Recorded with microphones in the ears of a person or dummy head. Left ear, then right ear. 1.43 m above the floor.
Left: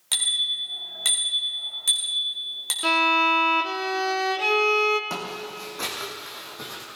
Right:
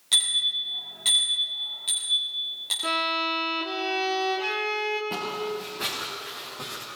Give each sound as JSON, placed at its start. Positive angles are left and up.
{"t": 0.1, "sound": "a bicycle bell", "side_deg": 40, "distance_m": 6.0}
{"t": 2.8, "sound": "a violin", "side_deg": 75, "distance_m": 1.7}
{"t": 5.1, "sound": "footsteps", "side_deg": 50, "distance_m": 4.0}